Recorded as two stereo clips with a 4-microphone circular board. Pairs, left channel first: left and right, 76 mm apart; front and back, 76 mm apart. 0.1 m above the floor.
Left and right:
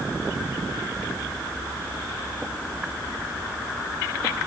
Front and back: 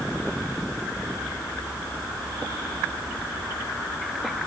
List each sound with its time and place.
Only background noise.